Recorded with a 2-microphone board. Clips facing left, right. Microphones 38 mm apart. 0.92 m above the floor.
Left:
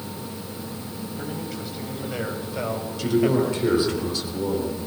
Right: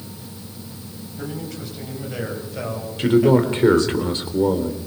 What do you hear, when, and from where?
1.2 s a man speaking: 5° left (ahead or behind), 7 m; by 4.0 s 20° left (ahead or behind), 5 m
3.0 s a man speaking: 40° right (ahead or behind), 3 m